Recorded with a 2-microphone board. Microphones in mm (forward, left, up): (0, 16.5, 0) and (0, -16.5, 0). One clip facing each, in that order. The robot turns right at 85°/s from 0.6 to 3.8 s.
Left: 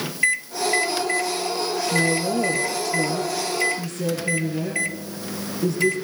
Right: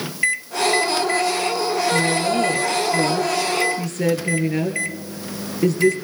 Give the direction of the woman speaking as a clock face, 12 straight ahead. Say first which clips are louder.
Left 1 dB; 8 o'clock.